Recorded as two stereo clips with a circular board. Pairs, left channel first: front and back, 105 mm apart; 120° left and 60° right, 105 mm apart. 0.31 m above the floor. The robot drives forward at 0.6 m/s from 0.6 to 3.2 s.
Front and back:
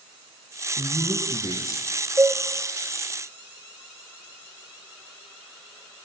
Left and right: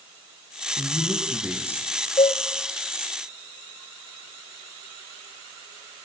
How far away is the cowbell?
About 4 m.